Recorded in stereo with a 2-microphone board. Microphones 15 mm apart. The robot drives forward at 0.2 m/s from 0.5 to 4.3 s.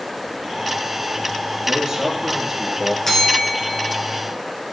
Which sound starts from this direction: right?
A man speaking, at 1.6 s.